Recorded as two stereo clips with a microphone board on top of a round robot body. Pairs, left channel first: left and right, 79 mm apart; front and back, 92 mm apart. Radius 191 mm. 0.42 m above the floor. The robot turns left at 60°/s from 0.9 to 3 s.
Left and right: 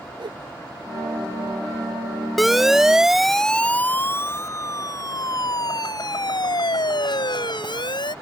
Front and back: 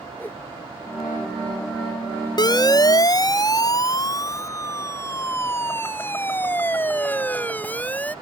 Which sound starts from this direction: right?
A whoosh, at 0.2 s.